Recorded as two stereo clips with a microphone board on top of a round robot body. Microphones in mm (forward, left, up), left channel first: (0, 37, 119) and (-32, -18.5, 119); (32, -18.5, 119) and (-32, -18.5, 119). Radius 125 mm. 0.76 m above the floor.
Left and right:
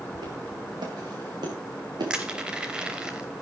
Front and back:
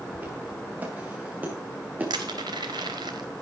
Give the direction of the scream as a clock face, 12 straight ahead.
I don't hear a scream.